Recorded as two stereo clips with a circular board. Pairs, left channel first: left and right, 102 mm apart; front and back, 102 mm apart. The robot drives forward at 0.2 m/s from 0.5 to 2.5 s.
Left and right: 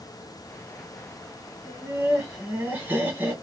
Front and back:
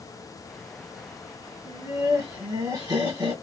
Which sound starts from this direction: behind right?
Laughter, at 1.6 s.